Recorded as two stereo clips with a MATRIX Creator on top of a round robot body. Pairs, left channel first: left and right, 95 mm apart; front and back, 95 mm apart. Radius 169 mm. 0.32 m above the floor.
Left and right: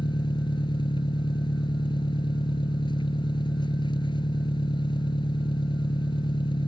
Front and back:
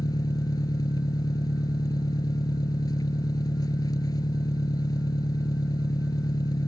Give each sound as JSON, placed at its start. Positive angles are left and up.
{"t": 0.0, "sound": "an engine running", "azimuth_deg": 50}